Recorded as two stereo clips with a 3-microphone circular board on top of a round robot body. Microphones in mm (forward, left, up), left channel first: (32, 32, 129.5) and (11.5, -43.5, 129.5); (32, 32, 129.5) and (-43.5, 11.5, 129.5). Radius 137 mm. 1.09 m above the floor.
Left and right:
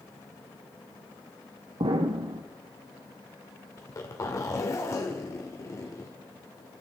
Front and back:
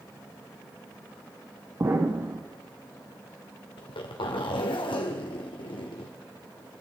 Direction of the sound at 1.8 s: 110° right.